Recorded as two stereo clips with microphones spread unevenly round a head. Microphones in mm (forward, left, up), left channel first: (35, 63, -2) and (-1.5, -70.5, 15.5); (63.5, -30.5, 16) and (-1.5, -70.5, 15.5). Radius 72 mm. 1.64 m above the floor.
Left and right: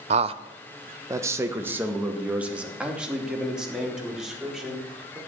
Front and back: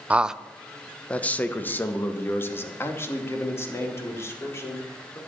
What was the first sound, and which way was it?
A man speaking, 80° right.